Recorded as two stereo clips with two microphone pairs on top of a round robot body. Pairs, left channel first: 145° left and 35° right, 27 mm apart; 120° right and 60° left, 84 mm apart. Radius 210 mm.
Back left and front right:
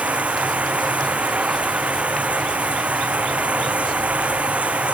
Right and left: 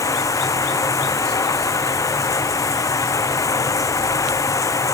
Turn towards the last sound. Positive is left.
turn(degrees=-70)